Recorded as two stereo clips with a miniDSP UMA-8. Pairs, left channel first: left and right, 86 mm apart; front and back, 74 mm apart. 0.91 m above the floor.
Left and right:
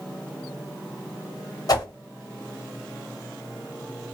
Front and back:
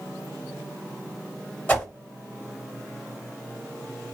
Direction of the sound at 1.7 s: 60° left.